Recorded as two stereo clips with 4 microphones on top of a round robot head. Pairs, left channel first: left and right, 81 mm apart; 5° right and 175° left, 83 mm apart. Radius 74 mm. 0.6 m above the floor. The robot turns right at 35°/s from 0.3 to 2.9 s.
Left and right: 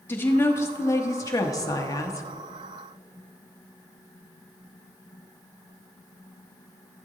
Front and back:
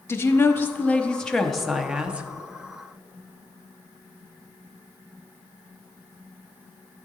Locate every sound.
0.1 s a woman speaking: 40° left, 0.7 m; by 2.3 s 110° left, 0.7 m